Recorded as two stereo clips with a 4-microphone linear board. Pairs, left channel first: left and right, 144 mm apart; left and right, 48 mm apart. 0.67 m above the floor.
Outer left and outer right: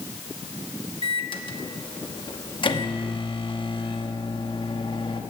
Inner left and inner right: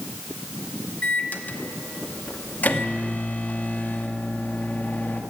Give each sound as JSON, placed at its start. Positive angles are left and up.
{"t": 1.0, "sound": "a microwave", "side_deg": 35, "distance_m": 0.9}